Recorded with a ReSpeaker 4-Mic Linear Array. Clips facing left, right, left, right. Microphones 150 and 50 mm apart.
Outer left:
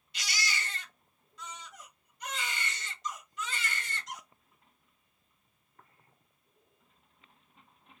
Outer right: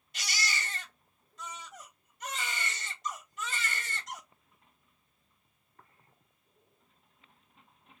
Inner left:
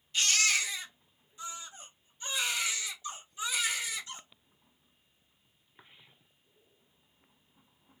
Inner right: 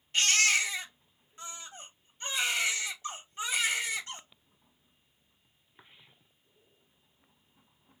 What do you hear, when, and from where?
0.1 s a baby crying: 45° right (ahead or behind), 1.3 m